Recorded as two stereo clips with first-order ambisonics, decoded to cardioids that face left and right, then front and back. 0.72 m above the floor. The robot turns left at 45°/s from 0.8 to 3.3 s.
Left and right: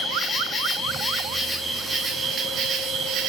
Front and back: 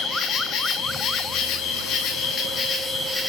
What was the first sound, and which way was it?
An insect, 30° left.